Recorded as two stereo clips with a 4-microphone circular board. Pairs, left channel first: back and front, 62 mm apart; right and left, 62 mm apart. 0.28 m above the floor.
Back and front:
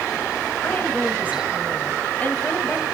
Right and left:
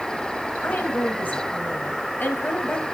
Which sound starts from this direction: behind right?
A woman speaking, at 0.6 s.